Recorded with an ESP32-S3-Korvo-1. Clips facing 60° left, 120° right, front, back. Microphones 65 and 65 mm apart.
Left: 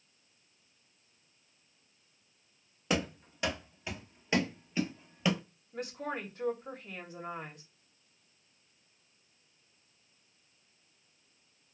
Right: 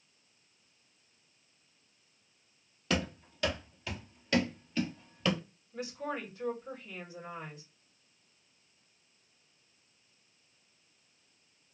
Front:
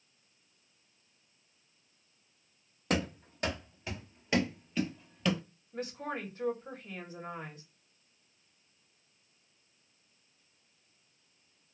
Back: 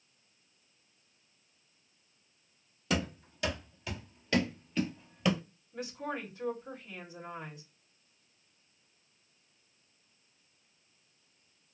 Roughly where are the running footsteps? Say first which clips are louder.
Left 1 dB, front 1 dB; ahead.